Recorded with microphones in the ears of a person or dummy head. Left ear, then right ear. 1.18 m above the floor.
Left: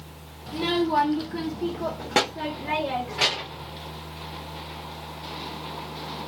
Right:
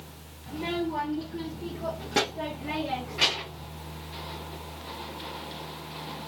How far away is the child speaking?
About 0.8 m.